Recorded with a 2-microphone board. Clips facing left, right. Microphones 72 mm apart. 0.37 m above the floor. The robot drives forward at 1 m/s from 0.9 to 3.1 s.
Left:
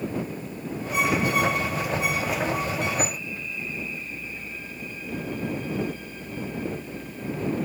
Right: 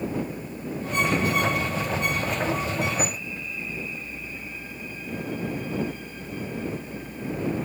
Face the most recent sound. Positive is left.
No sound to turn to.